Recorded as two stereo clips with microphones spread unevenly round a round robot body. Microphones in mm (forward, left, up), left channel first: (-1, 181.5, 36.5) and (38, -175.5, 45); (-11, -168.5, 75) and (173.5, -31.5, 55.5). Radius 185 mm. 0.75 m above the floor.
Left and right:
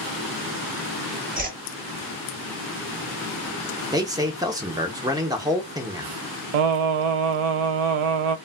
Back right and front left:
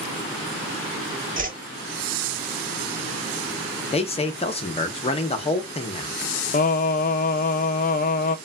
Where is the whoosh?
15° right, 1.0 m.